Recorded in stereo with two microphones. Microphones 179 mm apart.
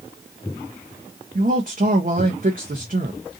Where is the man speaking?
55° right (ahead or behind), 0.7 m.